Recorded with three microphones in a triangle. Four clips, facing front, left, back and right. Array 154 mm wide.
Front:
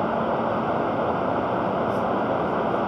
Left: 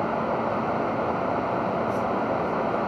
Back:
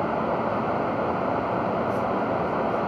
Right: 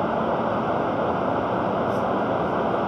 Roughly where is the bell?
No bell in this recording.